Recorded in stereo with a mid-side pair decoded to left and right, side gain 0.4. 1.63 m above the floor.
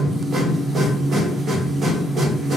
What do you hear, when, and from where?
0.0 s a machine running: 55° right, 1.3 m